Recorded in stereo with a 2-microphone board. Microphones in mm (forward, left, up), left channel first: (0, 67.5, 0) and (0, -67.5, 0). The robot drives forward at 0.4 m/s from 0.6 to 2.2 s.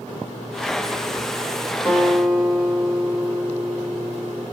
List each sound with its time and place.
1.9 s a guitar: 5° right (ahead or behind), 0.9 m